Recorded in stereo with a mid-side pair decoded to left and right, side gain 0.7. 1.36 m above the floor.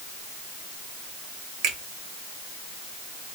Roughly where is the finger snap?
Ahead right.